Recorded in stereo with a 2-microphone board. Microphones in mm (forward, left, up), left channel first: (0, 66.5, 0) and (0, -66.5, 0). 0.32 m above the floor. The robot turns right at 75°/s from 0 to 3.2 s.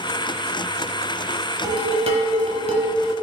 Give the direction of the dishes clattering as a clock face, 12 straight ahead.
5 o'clock.